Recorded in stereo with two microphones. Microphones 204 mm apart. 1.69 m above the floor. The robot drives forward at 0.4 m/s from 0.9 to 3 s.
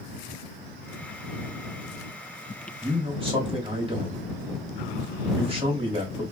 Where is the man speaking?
30° right (ahead or behind), 1.3 m; by 6.2 s 25° right (ahead or behind), 1.4 m.